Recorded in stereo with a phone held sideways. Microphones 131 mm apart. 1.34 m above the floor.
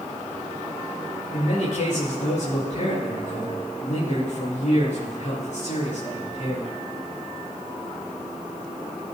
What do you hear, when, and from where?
1.3 s a man speaking: 70° left (ahead or behind), 7 m